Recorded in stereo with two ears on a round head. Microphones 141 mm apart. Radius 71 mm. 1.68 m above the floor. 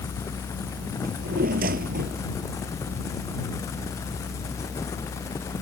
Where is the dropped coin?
I don't hear a dropped coin.